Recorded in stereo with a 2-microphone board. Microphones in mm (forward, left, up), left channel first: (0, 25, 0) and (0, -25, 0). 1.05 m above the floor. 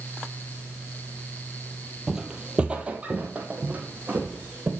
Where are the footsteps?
10° right (ahead or behind), 1.1 m; by 4.7 s 35° right (ahead or behind), 2.5 m.